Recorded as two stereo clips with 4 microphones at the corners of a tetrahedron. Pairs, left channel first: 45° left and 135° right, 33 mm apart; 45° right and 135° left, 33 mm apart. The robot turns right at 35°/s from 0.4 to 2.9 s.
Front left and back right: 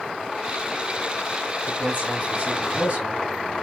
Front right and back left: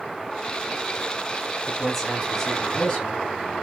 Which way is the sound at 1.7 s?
145° right.